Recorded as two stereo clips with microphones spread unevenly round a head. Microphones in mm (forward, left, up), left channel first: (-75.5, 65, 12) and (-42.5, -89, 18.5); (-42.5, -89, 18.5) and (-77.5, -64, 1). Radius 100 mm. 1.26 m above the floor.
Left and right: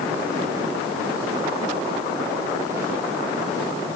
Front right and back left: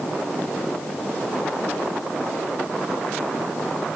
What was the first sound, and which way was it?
Only background noise.